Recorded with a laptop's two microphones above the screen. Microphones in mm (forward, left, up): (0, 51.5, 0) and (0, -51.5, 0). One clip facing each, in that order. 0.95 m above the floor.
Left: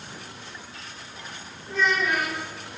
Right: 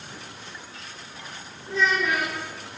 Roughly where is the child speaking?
Right.